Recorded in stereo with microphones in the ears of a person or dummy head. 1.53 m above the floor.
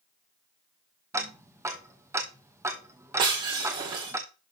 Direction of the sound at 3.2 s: 20° right (ahead or behind).